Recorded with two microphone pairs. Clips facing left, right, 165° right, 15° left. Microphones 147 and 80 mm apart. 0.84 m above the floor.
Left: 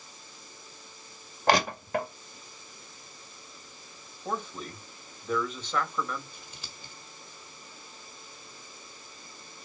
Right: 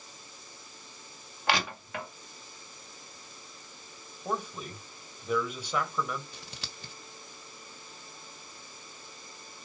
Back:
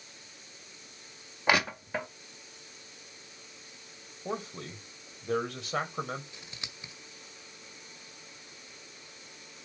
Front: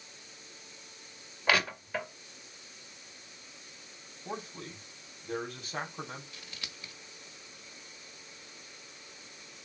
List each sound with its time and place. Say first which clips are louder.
1.5 s crushing: left 6 dB, back 2 dB; 130° left, 1.7 m
4.2 s a man speaking: even, back 4 dB; 170° right, 3 m
6.3 s scissors: right 2 dB, back 1 dB; 95° right, 1.3 m